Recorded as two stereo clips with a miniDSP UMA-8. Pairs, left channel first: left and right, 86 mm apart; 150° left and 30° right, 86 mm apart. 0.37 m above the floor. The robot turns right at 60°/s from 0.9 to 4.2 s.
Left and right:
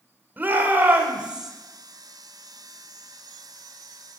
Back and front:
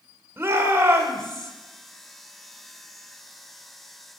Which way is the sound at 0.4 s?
50° right.